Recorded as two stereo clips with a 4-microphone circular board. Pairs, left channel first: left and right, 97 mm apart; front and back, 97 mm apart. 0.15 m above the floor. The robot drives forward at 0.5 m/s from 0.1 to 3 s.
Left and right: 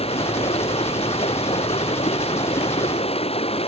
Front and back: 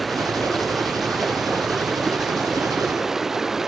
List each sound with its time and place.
0.0 s running water: 90° left; by 3.7 s 95° left